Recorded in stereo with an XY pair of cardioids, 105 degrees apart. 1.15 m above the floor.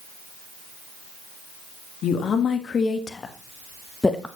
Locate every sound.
2.0 s a woman speaking: 60° left, 1.5 m; by 4.3 s 10° left, 0.9 m